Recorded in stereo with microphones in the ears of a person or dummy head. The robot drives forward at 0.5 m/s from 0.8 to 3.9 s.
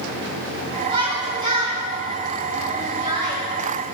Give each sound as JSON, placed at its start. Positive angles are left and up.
{"t": 0.9, "sound": "a shout", "side_deg": -25, "distance_m": 4.5}